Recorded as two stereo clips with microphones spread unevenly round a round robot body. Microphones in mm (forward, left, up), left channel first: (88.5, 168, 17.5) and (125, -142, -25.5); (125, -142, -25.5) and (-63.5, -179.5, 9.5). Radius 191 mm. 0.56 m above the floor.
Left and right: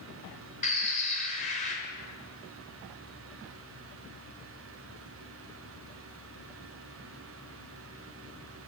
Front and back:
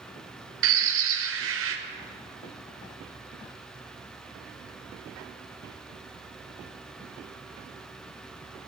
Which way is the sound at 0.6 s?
170° left.